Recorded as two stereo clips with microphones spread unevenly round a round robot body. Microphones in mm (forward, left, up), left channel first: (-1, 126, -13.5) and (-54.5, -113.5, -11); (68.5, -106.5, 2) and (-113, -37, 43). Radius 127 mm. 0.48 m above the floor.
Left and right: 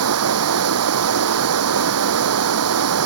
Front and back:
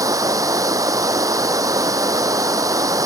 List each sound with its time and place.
0.0 s running water: 130° right